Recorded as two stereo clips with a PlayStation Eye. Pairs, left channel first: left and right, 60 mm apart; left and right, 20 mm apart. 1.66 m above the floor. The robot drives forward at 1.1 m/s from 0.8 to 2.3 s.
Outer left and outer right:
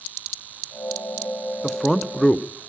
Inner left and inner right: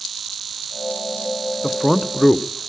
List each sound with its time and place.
1.6 s a man speaking: 5° left (ahead or behind), 0.7 m